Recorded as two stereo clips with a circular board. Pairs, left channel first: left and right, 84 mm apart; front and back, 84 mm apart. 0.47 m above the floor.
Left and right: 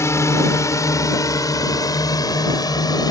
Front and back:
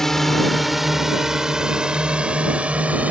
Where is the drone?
80° left; by 3.1 s 110° left.